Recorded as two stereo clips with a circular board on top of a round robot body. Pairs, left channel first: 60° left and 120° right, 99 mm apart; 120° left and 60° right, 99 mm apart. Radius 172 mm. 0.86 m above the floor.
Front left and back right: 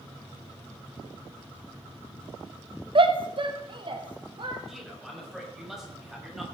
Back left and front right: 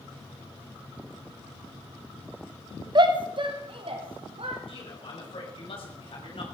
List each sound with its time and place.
3.0 s a shout: 95° right, 1.3 m; by 4.6 s 80° right, 2.5 m
4.7 s a man speaking: 155° left, 6.5 m